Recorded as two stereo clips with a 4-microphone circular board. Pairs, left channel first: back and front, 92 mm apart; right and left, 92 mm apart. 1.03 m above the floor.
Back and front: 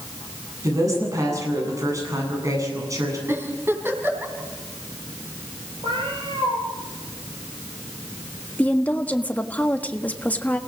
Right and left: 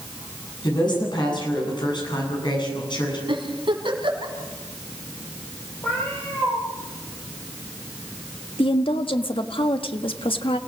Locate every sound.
0.6 s a woman speaking: 55° right, 9 m
3.3 s a giggle: 65° left, 4 m
5.8 s a cat meowing: 20° right, 8 m
8.6 s a woman speaking: 105° right, 1.4 m